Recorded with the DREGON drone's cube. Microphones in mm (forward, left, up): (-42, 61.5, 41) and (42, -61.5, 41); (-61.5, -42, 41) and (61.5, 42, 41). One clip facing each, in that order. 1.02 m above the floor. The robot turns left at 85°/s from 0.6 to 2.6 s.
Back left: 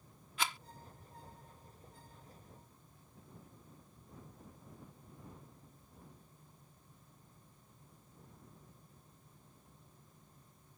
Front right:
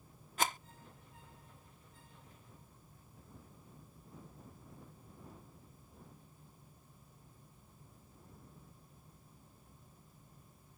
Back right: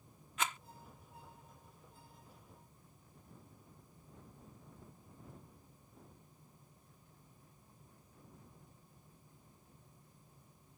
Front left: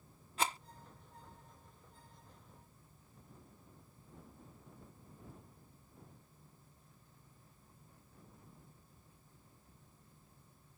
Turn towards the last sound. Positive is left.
turn(degrees=170)